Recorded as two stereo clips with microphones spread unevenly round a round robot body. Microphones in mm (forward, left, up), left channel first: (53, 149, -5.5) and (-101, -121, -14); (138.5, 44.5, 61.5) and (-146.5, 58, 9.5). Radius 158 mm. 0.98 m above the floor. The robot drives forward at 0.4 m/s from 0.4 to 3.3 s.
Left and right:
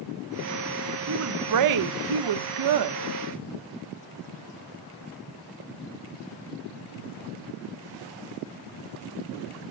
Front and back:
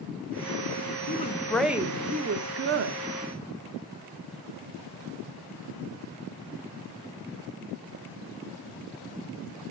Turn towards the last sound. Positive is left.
turn(degrees=-150)